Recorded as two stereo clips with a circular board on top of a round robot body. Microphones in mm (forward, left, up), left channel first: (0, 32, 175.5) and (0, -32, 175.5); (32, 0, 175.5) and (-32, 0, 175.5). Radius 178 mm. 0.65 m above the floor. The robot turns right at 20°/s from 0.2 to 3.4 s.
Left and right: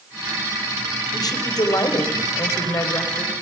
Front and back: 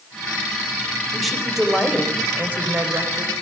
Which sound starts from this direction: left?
A woman speaking, at 1.1 s.